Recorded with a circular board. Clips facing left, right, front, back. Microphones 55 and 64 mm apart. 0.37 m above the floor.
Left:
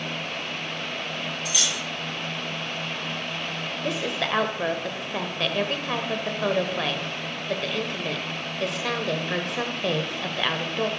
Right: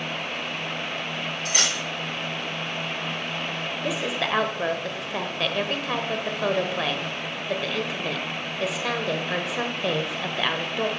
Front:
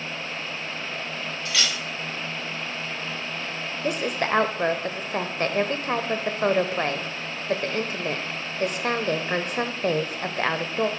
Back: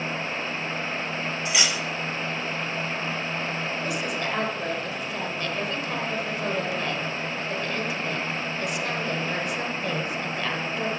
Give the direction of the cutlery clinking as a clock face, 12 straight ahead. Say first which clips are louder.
Right 4 dB, back 1 dB; 4 o'clock.